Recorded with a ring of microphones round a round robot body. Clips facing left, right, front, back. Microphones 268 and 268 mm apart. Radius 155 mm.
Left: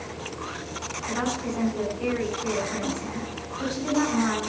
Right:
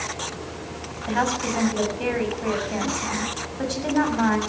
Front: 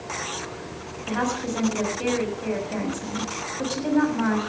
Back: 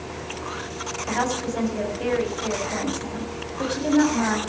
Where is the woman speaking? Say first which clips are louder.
Right 3 dB, even; 80° right, 6.5 m.